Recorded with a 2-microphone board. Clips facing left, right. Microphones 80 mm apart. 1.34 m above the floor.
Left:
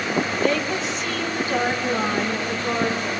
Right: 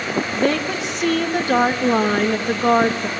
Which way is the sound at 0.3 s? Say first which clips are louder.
Right 2 dB; 65° right (ahead or behind).